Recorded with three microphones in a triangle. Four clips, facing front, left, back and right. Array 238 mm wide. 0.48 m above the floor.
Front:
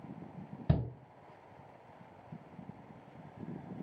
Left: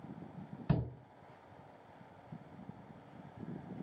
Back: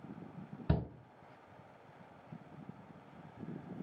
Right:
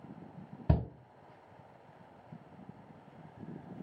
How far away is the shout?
About 1.2 m.